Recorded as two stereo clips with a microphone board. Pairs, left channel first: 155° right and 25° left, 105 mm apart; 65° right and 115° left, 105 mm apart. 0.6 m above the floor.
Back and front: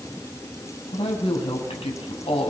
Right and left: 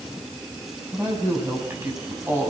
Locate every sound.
0.9 s a woman speaking: straight behind, 5 m